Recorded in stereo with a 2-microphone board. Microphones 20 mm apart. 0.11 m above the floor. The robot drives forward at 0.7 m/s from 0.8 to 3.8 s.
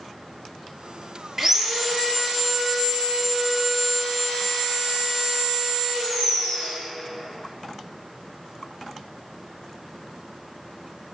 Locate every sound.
1.4 s sawing: 25° right (ahead or behind), 0.5 m; by 6.8 s 5° right (ahead or behind), 2 m